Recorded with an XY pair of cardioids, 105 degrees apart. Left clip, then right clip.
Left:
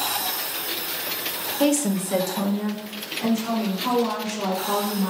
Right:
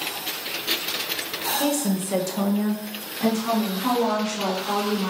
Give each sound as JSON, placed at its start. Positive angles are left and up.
{"t": 1.6, "sound": "a woman speaking", "azimuth_deg": 40, "distance_m": 0.8}